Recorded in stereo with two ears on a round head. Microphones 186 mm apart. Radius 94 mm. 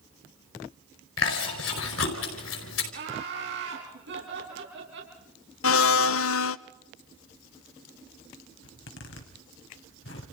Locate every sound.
1.2 s chewing: 70° left (ahead or behind), 5 m
2.9 s laughter: 65° right (ahead or behind), 5 m
5.6 s a blender: 80° left, 0.7 m
8.6 s a zipper: 70° left (ahead or behind), 3 m